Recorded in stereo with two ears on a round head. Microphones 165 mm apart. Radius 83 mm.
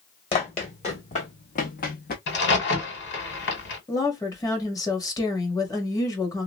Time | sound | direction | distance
0.3 | running footsteps | 30° left (ahead or behind) | 1.9 m
2.3 | a crack | 65° left (ahead or behind) | 2 m
3.9 | a woman speaking | 20° left (ahead or behind) | 1.5 m